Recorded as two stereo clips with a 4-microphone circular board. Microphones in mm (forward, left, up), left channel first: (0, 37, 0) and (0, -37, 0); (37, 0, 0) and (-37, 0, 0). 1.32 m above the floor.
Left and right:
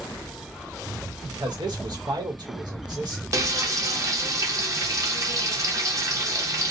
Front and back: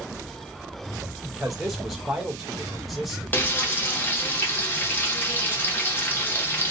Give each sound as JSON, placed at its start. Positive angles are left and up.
{"t": 1.2, "sound": "a man speaking", "azimuth_deg": -95, "distance_m": 1.2}
{"t": 3.3, "sound": "frying", "azimuth_deg": -55, "distance_m": 0.8}